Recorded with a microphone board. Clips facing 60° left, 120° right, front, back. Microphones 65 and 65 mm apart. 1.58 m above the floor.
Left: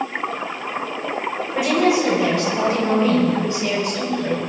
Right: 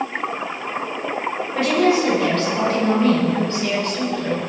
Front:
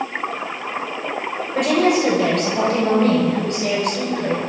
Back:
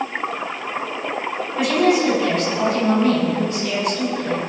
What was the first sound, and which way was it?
A woman speaking, 15° right.